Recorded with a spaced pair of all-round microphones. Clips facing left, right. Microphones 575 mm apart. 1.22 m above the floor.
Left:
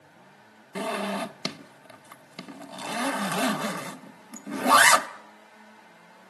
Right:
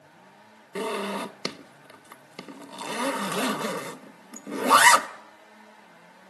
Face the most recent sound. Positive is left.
turn(degrees=15)  # may be behind; listen again after turning